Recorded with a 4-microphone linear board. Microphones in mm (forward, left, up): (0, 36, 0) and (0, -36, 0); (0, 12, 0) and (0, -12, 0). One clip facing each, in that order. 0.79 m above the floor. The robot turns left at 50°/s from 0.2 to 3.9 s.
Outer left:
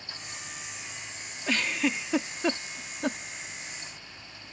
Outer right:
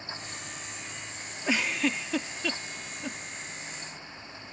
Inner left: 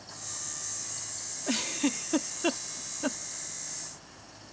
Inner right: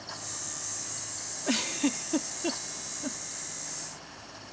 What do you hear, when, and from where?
1.5 s a giggle: 15° right (ahead or behind); by 3.2 s 65° left (ahead or behind)